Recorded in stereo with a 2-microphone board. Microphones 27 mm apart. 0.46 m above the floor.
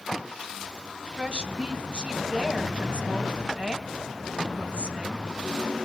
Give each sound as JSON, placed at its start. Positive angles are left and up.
{"t": 1.2, "sound": "a woman speaking", "side_deg": -50, "distance_m": 2.5}